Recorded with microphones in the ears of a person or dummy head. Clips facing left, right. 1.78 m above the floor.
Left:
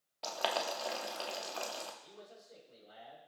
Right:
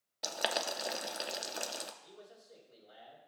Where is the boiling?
20° right (ahead or behind), 0.6 m.